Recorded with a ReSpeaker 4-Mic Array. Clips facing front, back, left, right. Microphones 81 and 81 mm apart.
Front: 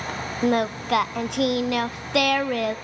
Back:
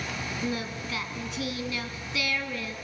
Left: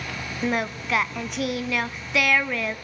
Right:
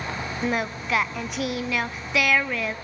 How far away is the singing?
About 0.6 m.